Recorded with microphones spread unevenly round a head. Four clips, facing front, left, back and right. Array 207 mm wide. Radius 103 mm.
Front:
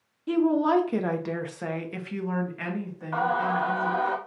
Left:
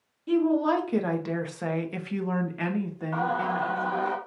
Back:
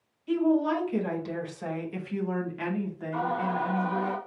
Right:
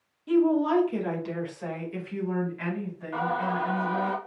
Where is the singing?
20° left, 1.7 m.